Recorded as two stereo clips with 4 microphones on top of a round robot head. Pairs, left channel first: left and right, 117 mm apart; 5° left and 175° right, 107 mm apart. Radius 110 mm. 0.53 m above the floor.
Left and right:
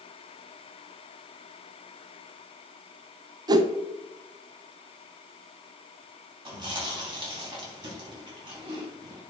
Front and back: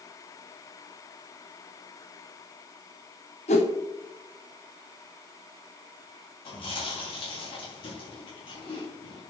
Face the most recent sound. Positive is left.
turn(degrees=-40)